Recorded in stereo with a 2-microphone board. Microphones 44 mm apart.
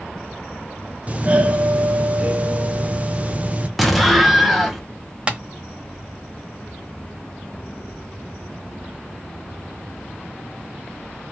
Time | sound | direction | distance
1.1 | a doorbell | 30° right (ahead or behind) | 0.6 m
3.8 | an explosion | centre (ahead or behind) | 0.8 m
5.3 | tapping | 25° right (ahead or behind) | 1.0 m